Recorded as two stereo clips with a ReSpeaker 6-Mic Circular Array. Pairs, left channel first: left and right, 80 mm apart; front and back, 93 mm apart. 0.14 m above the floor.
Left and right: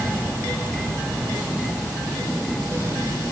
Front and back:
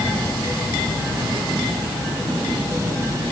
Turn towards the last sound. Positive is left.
No sound to turn to.